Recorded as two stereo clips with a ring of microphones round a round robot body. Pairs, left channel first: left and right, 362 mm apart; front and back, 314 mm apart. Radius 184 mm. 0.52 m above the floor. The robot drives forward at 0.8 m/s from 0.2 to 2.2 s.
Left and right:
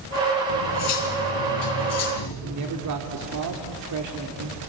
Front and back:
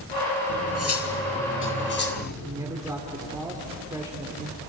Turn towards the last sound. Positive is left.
turn(degrees=-105)